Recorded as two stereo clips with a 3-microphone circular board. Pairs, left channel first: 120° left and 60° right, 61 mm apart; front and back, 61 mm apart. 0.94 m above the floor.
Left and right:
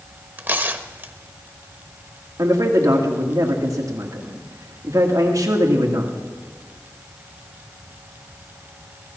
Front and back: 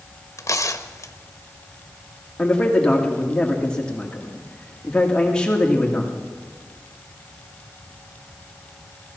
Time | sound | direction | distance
0.4 | tearing paper | 10° right | 1.1 m
2.4 | a man speaking | 75° right | 1.9 m